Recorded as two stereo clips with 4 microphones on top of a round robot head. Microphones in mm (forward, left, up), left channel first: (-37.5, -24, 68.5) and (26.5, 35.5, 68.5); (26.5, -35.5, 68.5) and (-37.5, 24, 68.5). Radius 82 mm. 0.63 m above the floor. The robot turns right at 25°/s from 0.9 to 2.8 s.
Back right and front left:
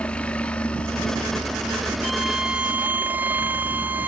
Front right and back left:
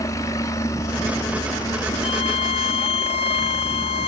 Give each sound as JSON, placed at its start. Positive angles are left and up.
{"t": 0.0, "sound": "a helicopter", "azimuth_deg": -65}
{"t": 2.0, "sound": "a violin", "azimuth_deg": -50}